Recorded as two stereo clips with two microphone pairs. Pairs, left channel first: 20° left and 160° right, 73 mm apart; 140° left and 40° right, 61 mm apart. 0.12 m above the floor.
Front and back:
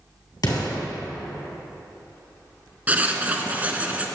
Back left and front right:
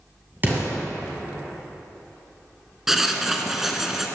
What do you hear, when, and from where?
0.4 s an explosion: 10° left, 2.5 m
2.9 s writing: 115° right, 0.6 m